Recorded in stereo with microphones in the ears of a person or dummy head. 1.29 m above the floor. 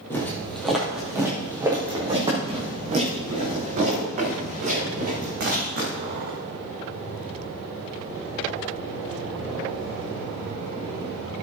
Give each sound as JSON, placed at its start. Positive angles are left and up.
{"t": 0.1, "sound": "footsteps", "side_deg": 15, "distance_m": 3.0}